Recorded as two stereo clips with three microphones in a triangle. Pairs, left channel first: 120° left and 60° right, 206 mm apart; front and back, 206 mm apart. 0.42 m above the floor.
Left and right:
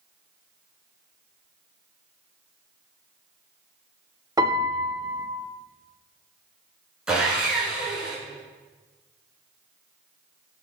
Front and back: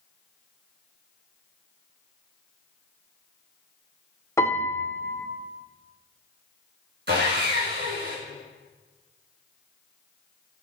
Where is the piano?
45° right, 0.7 m.